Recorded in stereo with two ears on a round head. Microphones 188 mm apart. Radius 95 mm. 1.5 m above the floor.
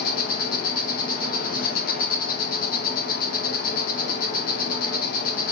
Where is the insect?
45° left (ahead or behind), 1.2 m.